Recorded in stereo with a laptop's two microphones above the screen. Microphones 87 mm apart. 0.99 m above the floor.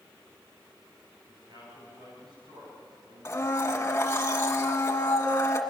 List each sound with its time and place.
1.3 s a man speaking: 50° right (ahead or behind), 8.5 m; by 4.2 s 75° right (ahead or behind), 9.5 m
3.2 s a blender: 30° left (ahead or behind), 1.7 m